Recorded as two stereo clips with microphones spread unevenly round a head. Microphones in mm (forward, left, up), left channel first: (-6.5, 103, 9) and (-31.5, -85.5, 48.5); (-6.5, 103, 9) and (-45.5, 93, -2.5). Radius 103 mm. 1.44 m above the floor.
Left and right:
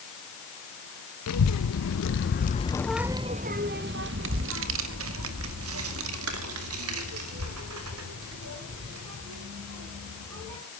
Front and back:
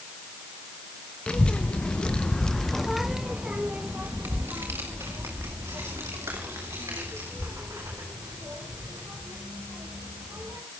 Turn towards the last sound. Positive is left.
turn(degrees=-100)